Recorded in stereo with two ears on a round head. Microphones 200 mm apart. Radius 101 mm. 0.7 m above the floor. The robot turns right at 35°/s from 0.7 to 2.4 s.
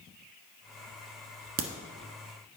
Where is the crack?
45° right (ahead or behind), 1.3 m; by 1.7 s 40° right (ahead or behind), 1.3 m.